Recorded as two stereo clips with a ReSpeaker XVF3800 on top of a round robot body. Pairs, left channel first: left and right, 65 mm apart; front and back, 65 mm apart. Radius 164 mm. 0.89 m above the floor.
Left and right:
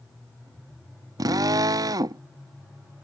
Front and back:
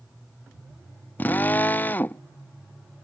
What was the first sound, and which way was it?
A drill, 65° right.